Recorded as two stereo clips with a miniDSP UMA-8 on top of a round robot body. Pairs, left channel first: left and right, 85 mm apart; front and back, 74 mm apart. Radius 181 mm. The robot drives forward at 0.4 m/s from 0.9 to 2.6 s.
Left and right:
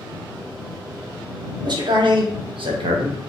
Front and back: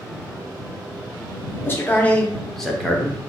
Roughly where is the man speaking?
Ahead right.